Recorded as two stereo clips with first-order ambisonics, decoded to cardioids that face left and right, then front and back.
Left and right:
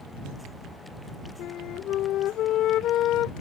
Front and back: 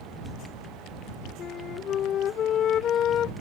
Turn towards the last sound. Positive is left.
turn(degrees=50)